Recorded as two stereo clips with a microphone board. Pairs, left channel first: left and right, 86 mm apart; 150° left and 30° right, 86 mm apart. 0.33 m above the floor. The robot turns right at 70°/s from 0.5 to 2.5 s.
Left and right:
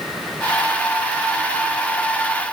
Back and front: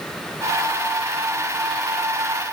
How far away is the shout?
I don't hear a shout.